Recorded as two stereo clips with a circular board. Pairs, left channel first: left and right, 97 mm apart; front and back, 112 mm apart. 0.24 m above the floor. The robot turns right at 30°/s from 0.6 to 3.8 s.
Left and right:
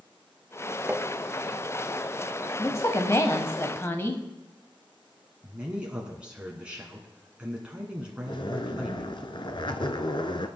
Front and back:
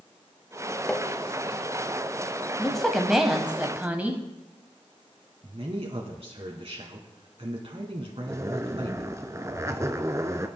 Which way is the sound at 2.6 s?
80° left.